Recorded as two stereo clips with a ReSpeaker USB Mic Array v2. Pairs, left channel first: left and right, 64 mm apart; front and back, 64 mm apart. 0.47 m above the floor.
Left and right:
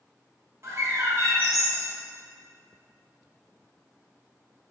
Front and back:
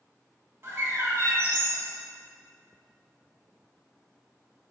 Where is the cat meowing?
No cat meowing in this recording.